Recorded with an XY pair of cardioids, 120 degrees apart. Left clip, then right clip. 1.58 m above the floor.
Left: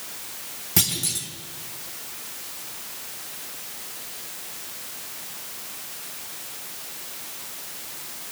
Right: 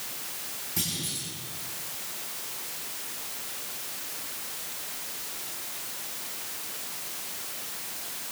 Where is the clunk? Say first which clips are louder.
Left 8 dB; 70° left, 3.5 m.